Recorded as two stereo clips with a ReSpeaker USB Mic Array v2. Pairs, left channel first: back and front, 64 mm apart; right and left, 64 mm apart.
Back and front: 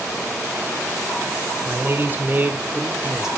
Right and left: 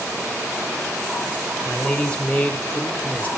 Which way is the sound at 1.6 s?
20° right.